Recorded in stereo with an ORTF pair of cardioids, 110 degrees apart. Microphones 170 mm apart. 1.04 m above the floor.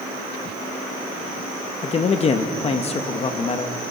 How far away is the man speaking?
About 1.2 m.